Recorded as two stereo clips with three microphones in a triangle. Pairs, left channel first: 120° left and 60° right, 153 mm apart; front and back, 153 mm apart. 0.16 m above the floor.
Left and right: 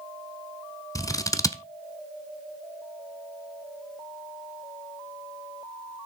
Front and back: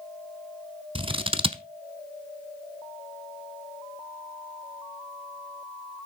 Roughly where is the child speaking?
I don't hear a child speaking.